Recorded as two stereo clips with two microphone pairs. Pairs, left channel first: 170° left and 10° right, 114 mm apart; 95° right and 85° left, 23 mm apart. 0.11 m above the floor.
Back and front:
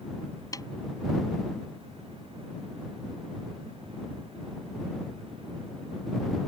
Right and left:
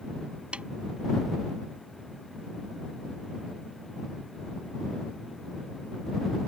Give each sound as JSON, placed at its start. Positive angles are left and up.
{"t": 0.5, "sound": "a snare drum", "azimuth_deg": 110}